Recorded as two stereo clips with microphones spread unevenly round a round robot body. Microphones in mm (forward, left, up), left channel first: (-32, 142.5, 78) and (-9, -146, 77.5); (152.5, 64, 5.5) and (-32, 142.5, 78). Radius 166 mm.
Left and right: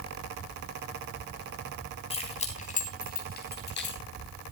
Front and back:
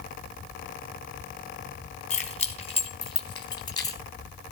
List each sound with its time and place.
2.1 s keys jangling: 25° left, 3.5 m; by 4.0 s 45° left, 3 m